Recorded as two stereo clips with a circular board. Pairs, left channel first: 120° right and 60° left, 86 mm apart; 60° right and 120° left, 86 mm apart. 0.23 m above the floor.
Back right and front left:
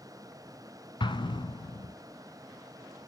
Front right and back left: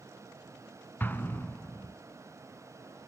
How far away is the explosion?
About 0.9 m.